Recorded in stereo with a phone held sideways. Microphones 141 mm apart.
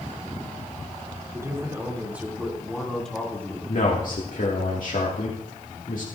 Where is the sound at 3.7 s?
70° left (ahead or behind), 2.0 m.